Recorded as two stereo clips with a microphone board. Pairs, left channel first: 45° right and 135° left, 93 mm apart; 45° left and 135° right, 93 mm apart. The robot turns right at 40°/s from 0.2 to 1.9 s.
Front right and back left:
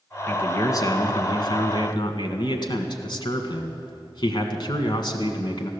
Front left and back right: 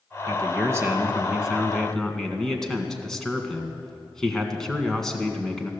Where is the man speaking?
105° right, 1.7 m; by 5.7 s 40° right, 1.7 m.